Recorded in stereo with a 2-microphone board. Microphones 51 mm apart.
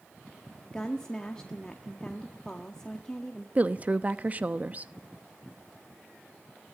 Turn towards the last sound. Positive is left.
turn(degrees=-35)  # may be behind; listen again after turning